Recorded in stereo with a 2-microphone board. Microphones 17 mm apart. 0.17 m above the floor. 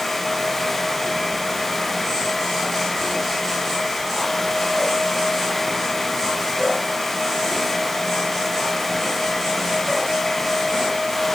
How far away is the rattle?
No rattle in this recording.